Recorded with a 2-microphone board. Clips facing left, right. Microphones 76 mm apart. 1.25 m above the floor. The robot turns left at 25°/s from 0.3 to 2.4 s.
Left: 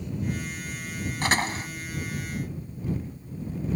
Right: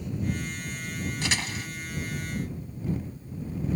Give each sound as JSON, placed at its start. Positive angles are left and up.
{"t": 1.2, "sound": "a door slam", "side_deg": 45}